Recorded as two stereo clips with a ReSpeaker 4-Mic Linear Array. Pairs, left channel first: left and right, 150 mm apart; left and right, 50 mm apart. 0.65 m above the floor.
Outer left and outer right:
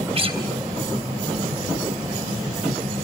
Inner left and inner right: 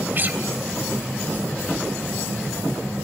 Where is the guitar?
40° right (ahead or behind), 3 m.